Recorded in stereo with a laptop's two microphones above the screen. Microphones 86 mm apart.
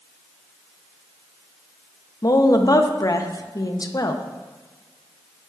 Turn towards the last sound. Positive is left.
turn(degrees=45)  # may be behind; listen again after turning